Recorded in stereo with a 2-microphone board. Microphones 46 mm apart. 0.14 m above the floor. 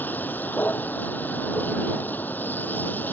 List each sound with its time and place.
0.0 s a vehicle: 45° left (ahead or behind)